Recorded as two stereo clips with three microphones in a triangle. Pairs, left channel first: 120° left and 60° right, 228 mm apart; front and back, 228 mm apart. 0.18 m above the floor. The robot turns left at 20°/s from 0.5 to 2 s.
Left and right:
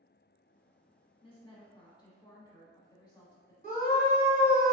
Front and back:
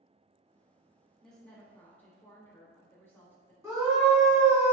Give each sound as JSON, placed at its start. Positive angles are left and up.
{"t": 1.2, "sound": "a woman speaking", "azimuth_deg": 85, "distance_m": 1.3}
{"t": 3.6, "sound": "a scream", "azimuth_deg": 115, "distance_m": 1.8}